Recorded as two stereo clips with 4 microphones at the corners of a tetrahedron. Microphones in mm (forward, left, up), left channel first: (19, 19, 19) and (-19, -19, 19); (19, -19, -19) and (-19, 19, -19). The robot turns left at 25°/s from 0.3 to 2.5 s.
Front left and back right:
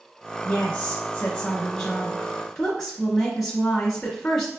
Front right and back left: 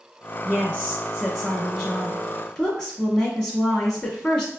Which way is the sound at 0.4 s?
35° left.